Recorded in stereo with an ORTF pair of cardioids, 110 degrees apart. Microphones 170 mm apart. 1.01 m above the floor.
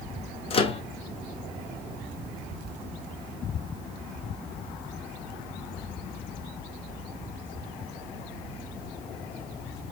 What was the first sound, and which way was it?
A microwave, 35° left.